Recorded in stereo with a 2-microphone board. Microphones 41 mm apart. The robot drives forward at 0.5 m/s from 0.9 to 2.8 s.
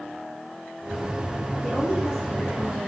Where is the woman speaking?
5° left (ahead or behind), 7.5 m.